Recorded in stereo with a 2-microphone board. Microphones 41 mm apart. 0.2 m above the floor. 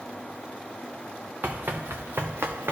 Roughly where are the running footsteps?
Right.